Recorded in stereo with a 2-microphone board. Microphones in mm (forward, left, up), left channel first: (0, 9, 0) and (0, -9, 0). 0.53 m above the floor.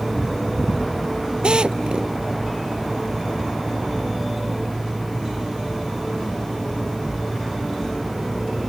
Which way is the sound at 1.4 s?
60° right (ahead or behind).